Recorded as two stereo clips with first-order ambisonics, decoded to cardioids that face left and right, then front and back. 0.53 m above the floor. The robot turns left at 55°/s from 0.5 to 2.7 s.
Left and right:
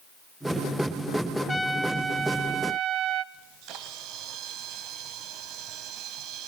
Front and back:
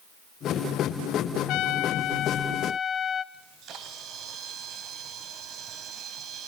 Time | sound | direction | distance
1.5 | a trumpet | 10° left | 0.8 m
3.3 | a camera shutter | 125° right | 2 m